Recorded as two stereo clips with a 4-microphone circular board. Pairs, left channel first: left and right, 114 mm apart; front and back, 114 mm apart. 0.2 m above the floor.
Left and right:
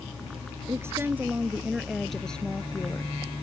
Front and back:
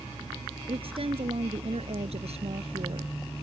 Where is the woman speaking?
150° right; by 3.2 s 160° left.